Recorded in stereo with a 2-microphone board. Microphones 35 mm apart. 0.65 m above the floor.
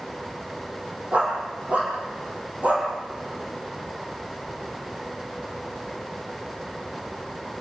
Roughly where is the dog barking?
Right.